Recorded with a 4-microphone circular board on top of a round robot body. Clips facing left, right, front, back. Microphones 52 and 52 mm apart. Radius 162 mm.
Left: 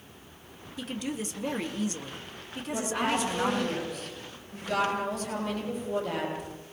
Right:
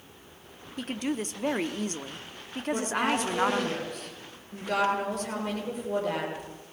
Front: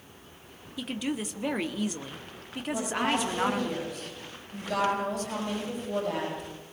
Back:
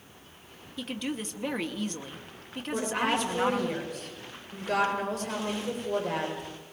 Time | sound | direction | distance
0.8 | a woman speaking | 85° right | 1.7 m
2.7 | a woman speaking | 130° right | 9 m